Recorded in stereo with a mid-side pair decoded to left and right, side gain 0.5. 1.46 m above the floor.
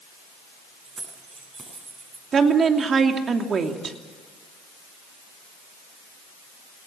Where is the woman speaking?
45° right, 3 m.